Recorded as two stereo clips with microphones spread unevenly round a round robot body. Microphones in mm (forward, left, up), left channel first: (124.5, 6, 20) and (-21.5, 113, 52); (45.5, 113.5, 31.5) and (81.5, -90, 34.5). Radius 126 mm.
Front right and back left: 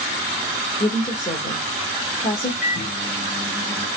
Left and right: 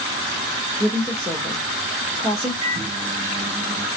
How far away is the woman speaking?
About 1.1 m.